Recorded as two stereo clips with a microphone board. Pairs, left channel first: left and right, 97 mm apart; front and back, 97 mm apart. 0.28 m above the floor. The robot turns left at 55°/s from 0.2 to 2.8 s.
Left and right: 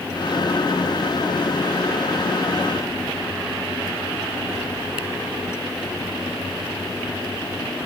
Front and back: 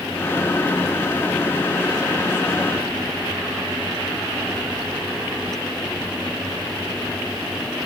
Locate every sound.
Only background noise.